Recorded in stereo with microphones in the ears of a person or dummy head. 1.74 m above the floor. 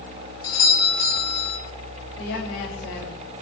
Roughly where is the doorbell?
Left.